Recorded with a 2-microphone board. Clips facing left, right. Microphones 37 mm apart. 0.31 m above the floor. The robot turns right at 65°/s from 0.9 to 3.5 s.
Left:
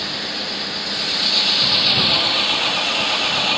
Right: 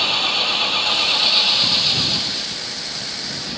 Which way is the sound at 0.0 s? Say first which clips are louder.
Right 7 dB; 50° right.